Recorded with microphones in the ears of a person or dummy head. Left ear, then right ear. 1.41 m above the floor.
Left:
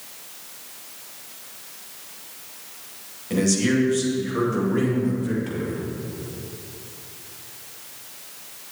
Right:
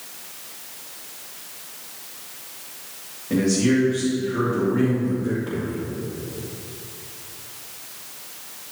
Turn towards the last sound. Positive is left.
turn(degrees=75)  # may be behind; listen again after turning